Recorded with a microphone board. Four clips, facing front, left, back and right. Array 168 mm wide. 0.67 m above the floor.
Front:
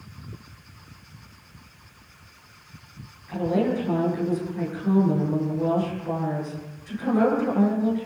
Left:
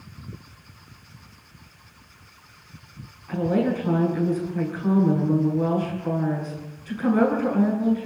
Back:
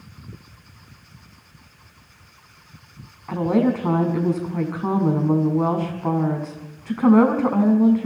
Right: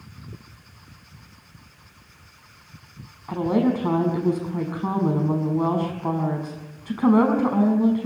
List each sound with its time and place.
3.3 s a woman speaking: 145° right, 6 m